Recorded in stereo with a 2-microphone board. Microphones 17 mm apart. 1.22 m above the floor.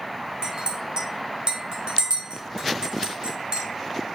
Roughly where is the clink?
Right.